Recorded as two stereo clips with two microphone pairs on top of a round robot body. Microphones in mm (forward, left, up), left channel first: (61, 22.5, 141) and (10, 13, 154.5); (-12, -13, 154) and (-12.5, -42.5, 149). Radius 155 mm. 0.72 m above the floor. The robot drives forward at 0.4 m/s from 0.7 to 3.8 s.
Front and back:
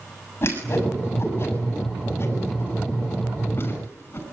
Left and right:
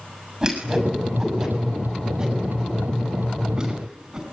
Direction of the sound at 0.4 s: 30° right.